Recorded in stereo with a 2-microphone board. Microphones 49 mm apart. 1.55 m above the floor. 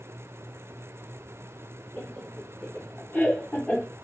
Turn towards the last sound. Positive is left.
turn(degrees=30)  # may be behind; listen again after turning